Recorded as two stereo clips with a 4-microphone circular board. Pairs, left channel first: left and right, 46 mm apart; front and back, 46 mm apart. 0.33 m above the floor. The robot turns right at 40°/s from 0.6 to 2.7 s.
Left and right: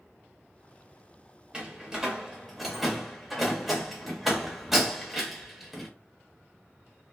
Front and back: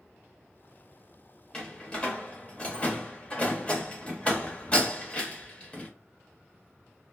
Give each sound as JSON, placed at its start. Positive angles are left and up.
{"t": 1.5, "sound": "a door slam", "azimuth_deg": -50, "distance_m": 0.7}